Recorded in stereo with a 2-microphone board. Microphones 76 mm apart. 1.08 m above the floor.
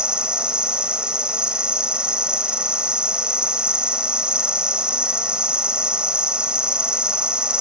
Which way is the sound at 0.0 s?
15° right (ahead or behind).